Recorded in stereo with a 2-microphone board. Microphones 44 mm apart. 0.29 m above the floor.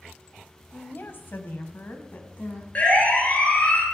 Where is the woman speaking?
45° left (ahead or behind), 1.7 m; by 2.6 s 40° left (ahead or behind), 2.5 m.